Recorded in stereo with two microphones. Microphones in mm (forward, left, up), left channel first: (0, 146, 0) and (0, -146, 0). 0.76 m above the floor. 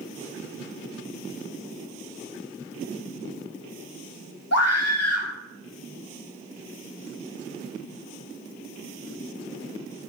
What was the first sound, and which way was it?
A scream, 60° left (ahead or behind).